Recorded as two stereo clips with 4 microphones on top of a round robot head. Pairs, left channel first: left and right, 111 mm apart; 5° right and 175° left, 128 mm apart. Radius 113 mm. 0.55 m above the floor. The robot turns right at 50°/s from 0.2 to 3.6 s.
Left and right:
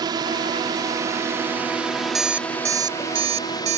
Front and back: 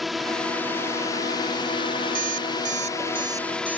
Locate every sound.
0.0 s a drone: 95° right; by 3.8 s 75° left
2.1 s an alarm clock: straight behind; by 3.8 s 105° right